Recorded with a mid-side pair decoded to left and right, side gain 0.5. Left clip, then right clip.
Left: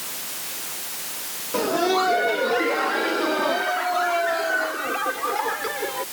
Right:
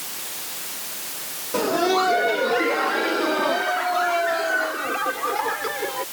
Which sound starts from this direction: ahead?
Laughter, at 1.5 s.